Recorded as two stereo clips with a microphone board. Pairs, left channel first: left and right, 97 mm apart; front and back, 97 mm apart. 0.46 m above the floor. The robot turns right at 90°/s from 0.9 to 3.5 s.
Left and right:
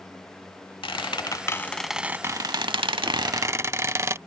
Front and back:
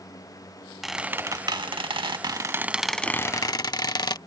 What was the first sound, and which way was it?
A squeak, 95° left.